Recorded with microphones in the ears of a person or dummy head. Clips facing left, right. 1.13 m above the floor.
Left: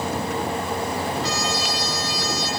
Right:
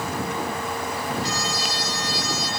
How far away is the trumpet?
About 9.5 m.